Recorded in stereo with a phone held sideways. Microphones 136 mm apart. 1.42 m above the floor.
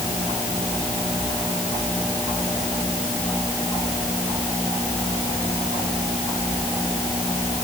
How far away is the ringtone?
No ringtone in this recording.